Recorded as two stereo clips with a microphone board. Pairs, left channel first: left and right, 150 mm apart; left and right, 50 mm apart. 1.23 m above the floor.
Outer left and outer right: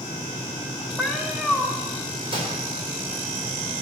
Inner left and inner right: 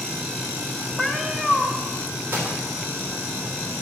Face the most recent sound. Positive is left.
turn(degrees=-40)  # may be behind; listen again after turning